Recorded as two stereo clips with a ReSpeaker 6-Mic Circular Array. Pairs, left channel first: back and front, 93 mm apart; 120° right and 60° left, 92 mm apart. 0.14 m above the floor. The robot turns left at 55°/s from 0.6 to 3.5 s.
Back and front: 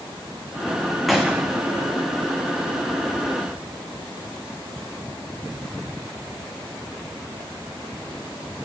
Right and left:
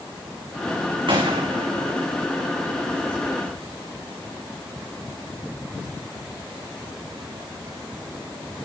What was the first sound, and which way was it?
A gunshot, 90° left.